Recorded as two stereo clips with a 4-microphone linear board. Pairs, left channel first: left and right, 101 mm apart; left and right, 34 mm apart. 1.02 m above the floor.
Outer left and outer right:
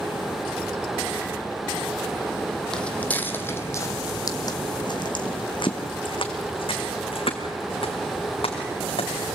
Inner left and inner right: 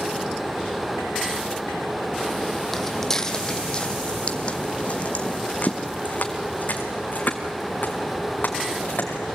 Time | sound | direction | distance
2.7 | footsteps | 5° left (ahead or behind) | 1.5 m